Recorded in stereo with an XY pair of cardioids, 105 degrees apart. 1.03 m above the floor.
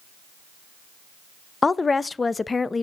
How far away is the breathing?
I don't hear breathing.